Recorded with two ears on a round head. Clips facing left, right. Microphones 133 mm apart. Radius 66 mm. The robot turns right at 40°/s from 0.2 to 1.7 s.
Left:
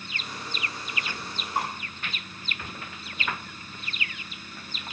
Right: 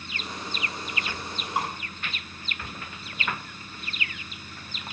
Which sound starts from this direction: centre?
Dripping, at 1.6 s.